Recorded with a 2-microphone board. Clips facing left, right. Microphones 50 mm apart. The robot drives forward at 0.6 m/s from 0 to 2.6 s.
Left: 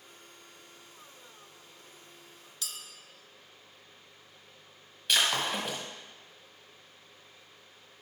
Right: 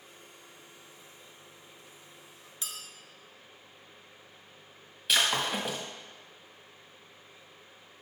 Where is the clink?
25° right (ahead or behind), 0.6 m.